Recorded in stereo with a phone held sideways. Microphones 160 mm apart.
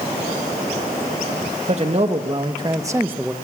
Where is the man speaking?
45° right (ahead or behind), 1.9 m; by 3.3 s 5° right (ahead or behind), 1.3 m.